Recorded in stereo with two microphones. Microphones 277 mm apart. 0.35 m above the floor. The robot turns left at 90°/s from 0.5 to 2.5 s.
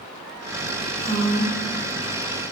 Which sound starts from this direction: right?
A woman speaking, at 1.0 s.